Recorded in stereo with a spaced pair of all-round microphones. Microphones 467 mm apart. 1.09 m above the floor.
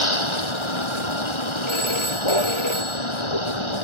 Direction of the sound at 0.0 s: 85° left.